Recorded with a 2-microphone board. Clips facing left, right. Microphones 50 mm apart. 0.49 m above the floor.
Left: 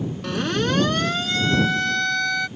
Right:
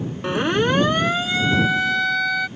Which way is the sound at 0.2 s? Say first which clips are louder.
Right 4 dB; 25° right (ahead or behind).